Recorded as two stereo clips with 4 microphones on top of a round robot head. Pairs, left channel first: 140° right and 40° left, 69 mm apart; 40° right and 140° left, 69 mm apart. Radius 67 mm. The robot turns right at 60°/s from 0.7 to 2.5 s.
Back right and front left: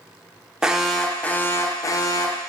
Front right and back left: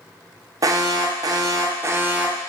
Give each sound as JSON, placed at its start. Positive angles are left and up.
{"t": 0.6, "sound": "an alarm", "azimuth_deg": 115, "distance_m": 0.6}